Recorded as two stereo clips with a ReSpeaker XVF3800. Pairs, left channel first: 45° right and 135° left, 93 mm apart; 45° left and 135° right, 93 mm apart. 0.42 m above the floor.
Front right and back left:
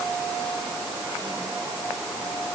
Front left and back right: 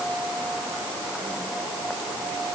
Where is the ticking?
No ticking in this recording.